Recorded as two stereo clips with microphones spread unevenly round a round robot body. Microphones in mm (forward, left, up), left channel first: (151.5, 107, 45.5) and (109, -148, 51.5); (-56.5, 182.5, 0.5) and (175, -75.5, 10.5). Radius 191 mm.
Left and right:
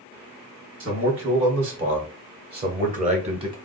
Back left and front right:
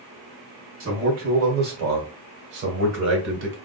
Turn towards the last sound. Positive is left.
turn(degrees=-45)